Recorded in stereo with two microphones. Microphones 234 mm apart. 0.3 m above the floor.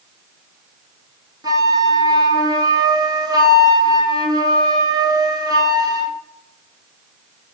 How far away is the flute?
About 1.3 m.